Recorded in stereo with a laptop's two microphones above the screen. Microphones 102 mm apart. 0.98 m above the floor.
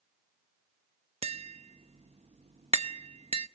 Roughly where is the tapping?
Right.